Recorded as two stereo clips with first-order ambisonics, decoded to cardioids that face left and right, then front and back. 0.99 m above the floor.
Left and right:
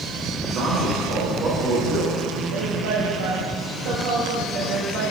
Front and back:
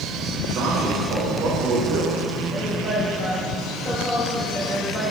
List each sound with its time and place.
0.4 s a man speaking: 135° right, 1.7 m
2.5 s a woman speaking: 75° right, 1.3 m